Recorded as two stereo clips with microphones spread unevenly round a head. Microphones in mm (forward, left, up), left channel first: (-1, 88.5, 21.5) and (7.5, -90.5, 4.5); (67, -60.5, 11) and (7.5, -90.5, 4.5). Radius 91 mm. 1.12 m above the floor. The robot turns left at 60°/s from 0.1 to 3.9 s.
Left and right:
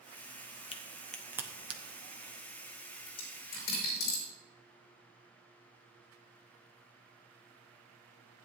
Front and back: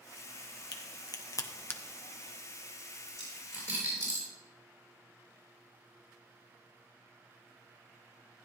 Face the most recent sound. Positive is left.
turn(degrees=90)